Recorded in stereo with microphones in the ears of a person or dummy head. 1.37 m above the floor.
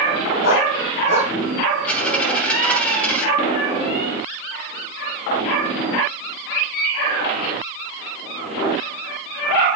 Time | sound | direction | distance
0.4 | a dog barking | 55° left (ahead or behind) | 4 m
1.9 | a dropped coin | 10° left (ahead or behind) | 2.5 m